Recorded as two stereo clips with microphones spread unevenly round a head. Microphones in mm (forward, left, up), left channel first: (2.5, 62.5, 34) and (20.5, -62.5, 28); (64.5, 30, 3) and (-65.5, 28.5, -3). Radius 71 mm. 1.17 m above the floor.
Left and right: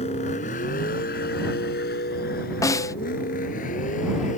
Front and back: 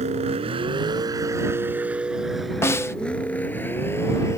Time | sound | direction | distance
0.0 | a vehicle | 145° left | ?
2.6 | a snare drum | 55° left | ?